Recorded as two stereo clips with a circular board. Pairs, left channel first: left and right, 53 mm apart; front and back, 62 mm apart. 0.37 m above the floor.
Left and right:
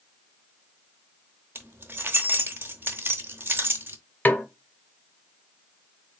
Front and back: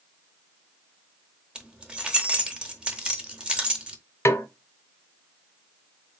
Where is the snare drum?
40° left, 0.6 m.